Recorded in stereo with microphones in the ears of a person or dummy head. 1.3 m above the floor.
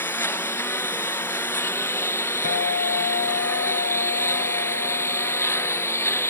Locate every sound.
0.0 s a lawn mower: 10° left (ahead or behind)
2.4 s a guitar: 55° left (ahead or behind)